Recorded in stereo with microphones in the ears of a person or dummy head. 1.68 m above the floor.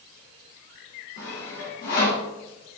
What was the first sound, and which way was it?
Sawing, 50° left (ahead or behind).